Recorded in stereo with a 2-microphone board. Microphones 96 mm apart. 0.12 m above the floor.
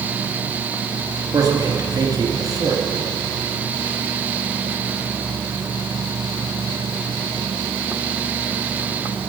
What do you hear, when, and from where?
1.3 s a man speaking: 40° right (ahead or behind), 1.5 m